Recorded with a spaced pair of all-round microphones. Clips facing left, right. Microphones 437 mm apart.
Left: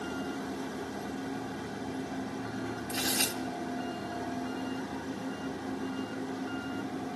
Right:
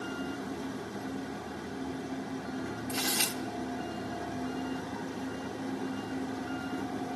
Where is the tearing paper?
15° right (ahead or behind), 0.5 m.